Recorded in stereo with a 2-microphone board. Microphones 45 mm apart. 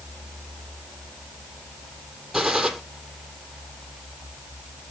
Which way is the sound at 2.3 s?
5° right (ahead or behind).